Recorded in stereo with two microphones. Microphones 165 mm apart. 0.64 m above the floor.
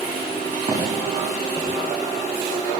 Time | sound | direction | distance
0.7 | footsteps | 30° right (ahead or behind) | 7.5 m